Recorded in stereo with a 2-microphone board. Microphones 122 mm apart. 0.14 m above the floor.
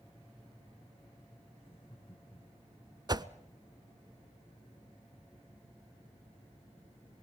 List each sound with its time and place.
1.6 s laughter: 50° left (ahead or behind), 8 m; by 3.0 s 45° left (ahead or behind), 8.5 m
3.1 s a whoosh: 35° right (ahead or behind), 0.6 m